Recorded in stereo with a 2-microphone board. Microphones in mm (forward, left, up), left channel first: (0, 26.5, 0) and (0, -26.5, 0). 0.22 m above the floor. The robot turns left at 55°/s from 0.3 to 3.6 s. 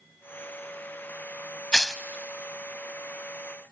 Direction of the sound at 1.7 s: 15° left (ahead or behind).